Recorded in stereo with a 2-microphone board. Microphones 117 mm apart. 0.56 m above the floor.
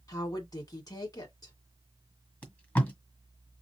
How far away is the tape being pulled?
About 1.7 m.